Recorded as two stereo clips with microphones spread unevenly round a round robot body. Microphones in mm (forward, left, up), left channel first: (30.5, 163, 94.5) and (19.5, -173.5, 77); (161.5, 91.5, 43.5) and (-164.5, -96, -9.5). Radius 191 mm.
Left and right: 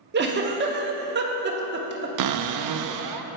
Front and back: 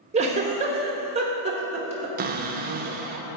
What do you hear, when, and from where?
0.1 s a giggle: 105° right, 0.9 m
2.2 s a cupboard door: 95° right, 0.5 m